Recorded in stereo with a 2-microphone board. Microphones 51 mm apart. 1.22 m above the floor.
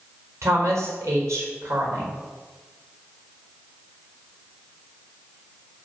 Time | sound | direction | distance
0.4 | a woman speaking | 60° right (ahead or behind) | 4.5 m